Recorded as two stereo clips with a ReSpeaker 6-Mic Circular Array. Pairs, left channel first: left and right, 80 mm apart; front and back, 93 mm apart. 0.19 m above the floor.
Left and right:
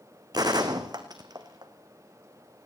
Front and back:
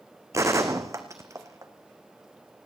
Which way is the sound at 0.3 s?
125° right.